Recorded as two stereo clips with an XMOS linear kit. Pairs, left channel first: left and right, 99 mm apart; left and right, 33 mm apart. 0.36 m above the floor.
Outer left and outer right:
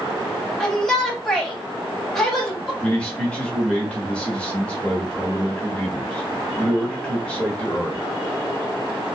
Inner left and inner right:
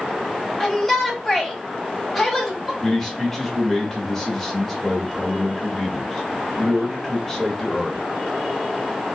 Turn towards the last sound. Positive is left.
turn(degrees=10)  # may be behind; listen again after turning